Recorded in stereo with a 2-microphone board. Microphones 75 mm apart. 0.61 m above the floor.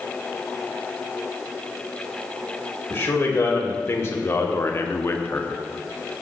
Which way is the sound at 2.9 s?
35° left (ahead or behind).